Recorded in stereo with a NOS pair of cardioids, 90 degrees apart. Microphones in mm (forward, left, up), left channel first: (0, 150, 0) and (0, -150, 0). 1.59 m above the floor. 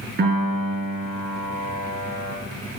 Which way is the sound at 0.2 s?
40° right.